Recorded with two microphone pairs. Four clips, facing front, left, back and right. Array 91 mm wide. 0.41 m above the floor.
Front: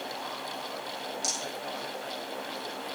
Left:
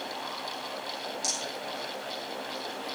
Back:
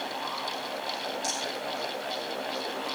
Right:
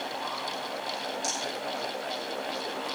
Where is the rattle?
30° right, 5 m.